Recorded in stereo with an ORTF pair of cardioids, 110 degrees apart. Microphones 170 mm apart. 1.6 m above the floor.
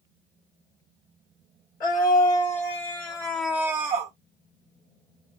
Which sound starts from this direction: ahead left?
A scream, at 1.8 s.